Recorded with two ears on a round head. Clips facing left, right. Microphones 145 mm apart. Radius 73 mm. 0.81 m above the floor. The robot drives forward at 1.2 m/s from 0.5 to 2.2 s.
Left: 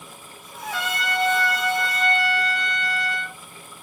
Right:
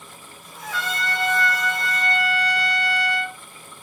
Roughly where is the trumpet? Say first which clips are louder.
Even; centre.